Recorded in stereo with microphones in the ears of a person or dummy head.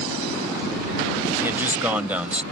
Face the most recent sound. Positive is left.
turn(degrees=-5)  # may be behind; listen again after turning